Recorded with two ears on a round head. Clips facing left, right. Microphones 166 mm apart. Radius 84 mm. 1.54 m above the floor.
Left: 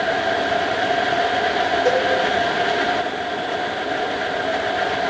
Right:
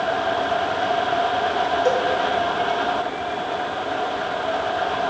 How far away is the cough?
No cough in this recording.